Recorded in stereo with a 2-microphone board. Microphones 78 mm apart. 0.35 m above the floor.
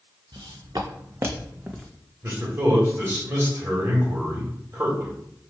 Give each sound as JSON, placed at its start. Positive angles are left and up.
{"t": 0.3, "sound": "footsteps", "side_deg": -65, "distance_m": 1.4}
{"t": 2.2, "sound": "a man speaking", "side_deg": -35, "distance_m": 1.4}